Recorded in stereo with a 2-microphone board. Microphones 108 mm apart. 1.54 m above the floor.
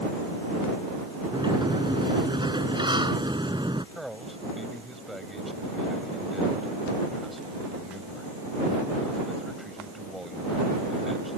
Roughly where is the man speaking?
Centre.